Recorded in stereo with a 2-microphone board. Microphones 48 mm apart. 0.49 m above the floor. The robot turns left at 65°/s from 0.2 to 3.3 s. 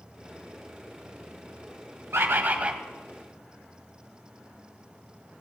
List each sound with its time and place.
2.1 s a bird: 120° right, 0.8 m; by 2.8 s 160° right, 0.8 m